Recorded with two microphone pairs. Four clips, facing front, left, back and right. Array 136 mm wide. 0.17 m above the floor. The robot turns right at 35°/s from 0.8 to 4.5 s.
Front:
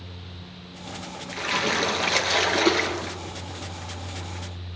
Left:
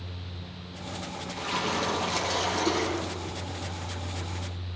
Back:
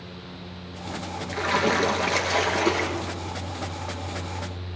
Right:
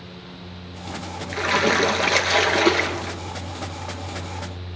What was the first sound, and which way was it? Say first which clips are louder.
A splash: right 10 dB, back 4 dB; 105° right.